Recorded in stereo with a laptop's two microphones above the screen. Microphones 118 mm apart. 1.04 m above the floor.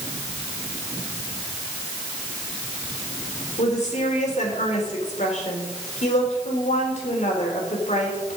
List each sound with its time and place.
3.6 s a woman speaking: 75° left (ahead or behind), 3.5 m